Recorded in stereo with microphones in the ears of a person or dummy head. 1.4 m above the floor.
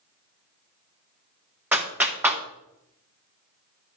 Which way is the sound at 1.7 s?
10° right (ahead or behind).